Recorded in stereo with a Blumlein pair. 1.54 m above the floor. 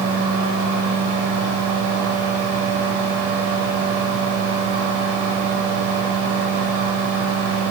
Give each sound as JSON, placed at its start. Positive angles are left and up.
{"t": 0.0, "sound": "a fan", "azimuth_deg": -50, "distance_m": 9.5}